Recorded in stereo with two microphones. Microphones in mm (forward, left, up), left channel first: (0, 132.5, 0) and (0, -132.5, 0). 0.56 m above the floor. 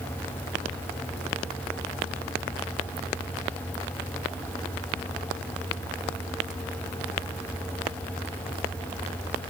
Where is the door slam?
No door slam in this recording.